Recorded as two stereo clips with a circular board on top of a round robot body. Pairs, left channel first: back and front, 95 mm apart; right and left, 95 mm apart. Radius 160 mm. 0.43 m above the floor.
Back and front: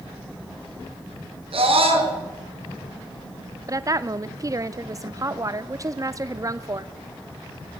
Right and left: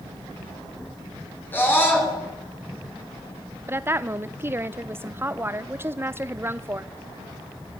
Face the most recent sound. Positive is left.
turn(degrees=35)